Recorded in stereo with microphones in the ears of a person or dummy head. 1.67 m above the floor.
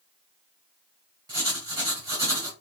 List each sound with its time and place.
1.3 s writing: 20° right (ahead or behind), 1.5 m